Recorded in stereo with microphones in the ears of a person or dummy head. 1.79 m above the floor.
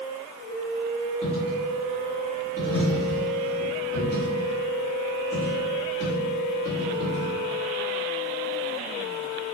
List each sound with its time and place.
1.2 s a dropped coin: 35° left (ahead or behind), 1.3 m